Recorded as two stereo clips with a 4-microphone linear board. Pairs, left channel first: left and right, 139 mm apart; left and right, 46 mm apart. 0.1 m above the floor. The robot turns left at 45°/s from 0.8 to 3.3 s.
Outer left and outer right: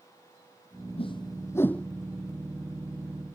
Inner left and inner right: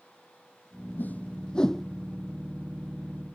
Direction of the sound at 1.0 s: 45° left (ahead or behind).